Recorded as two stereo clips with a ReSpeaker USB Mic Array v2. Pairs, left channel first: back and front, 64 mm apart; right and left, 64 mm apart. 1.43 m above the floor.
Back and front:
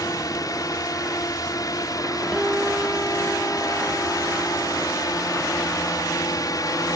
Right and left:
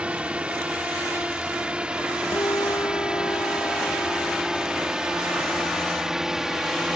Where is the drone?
160° left; by 7.0 s 170° left.